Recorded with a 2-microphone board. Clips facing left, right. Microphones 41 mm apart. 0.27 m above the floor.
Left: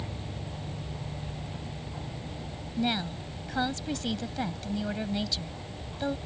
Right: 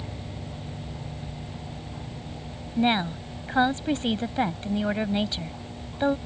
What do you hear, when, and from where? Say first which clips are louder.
2.8 s a woman speaking: right 7 dB; 35° right (ahead or behind)